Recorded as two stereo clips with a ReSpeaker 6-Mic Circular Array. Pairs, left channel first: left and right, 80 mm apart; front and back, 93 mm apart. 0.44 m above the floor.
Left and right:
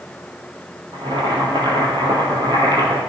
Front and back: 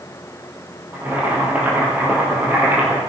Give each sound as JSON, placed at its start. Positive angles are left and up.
{"t": 0.9, "sound": "boiling", "azimuth_deg": -110, "distance_m": 3.5}